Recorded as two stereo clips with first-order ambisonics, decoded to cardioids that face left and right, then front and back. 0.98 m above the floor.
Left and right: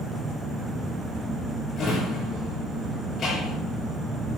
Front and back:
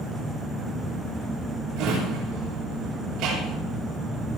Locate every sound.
1.8 s a drawer: 150° left, 8 m